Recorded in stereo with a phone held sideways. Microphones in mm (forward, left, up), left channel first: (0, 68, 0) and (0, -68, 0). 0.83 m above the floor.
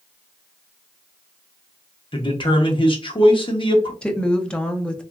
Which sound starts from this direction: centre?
A woman speaking, at 4.0 s.